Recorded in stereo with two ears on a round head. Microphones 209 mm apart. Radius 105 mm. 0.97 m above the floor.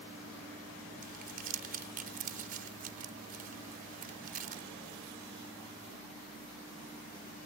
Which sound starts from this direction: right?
Crumpling, at 1.0 s.